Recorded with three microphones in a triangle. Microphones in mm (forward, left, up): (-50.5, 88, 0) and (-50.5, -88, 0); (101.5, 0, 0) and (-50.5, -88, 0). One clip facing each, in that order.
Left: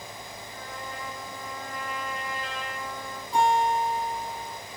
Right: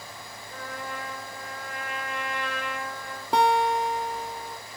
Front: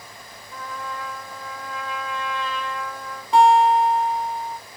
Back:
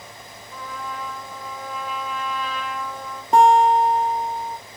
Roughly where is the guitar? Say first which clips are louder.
Right 1 dB, back 1 dB; right.